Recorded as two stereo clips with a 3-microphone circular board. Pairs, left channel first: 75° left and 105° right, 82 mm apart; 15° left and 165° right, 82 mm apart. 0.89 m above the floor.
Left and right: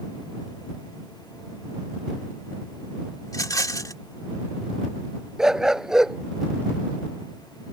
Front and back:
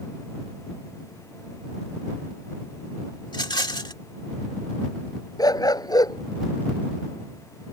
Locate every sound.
3.3 s a rattle: 35° left
5.4 s a dog barking: 20° right